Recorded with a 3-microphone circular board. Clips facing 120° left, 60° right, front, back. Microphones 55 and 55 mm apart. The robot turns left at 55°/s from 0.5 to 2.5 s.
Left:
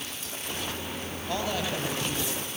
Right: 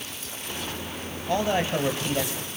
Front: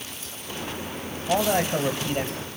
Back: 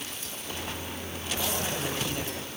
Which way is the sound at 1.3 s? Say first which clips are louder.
Right 6 dB, front 10 dB; 10° right.